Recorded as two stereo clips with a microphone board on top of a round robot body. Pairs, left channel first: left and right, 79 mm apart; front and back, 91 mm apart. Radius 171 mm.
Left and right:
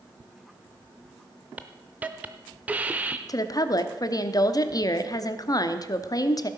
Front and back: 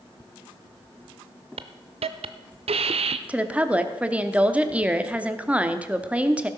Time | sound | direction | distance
1.6 | a hiss | 165° right | 0.5 m
3.3 | a woman speaking | 110° left | 1.1 m